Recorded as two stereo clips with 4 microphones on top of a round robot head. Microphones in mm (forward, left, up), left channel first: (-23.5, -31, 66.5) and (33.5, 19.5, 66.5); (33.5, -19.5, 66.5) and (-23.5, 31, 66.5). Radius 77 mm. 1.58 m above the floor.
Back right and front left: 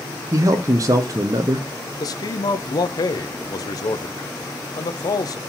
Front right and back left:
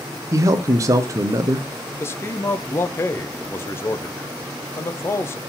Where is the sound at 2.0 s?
105° right, 0.5 m.